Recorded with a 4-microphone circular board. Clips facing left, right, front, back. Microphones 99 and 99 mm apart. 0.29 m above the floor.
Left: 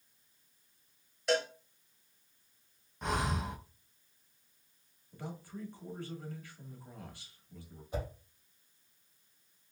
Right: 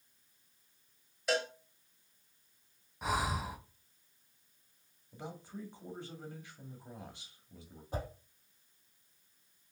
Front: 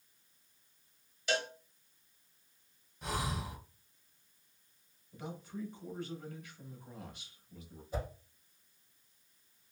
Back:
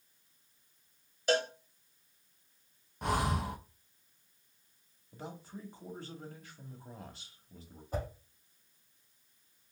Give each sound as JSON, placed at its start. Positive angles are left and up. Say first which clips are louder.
{"t": 1.3, "sound": "a cowbell", "louder": "left 2 dB, back 5 dB", "azimuth_deg": 180, "distance_m": 0.8}
{"t": 3.0, "sound": "breathing", "louder": "even, back 6 dB", "azimuth_deg": -175, "distance_m": 0.5}
{"t": 5.1, "sound": "a man speaking", "louder": "left 1 dB, front 2 dB", "azimuth_deg": -150, "distance_m": 1.2}
{"t": 7.9, "sound": "a whoosh", "louder": "left 1 dB, back 1 dB", "azimuth_deg": -140, "distance_m": 2.0}